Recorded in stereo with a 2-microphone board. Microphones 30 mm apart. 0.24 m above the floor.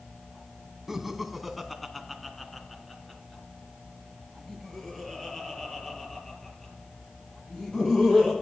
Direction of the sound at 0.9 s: 10° right (ahead or behind).